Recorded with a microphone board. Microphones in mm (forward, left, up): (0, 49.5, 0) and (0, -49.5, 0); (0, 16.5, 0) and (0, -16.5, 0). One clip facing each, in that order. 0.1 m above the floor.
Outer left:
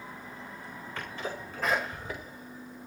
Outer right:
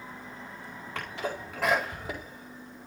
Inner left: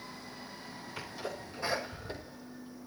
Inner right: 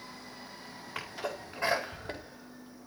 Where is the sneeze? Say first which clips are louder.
Outer right 3 dB, inner right 4 dB; 80° right, 9.5 m.